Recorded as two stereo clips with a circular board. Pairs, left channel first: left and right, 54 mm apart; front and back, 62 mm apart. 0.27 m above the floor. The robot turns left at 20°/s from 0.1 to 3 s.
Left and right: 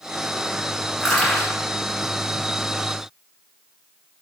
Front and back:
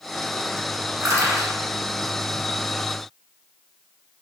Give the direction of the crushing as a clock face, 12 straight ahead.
6 o'clock.